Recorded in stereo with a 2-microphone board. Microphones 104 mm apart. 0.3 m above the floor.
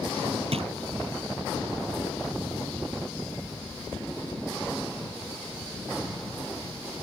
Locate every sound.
0.5 s a drawer: 70° right (ahead or behind)